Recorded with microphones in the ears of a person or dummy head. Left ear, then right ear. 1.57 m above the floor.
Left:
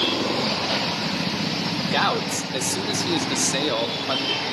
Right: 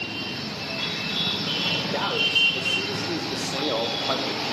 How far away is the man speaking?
About 1.3 m.